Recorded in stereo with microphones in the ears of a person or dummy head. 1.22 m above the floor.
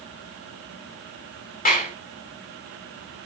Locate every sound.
1.6 s a clap: 40° left (ahead or behind), 2.5 m